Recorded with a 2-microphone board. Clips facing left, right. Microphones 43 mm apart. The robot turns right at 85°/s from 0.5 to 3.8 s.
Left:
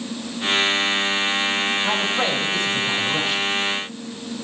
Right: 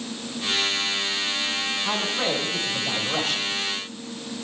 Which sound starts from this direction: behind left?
A man speaking, at 1.8 s.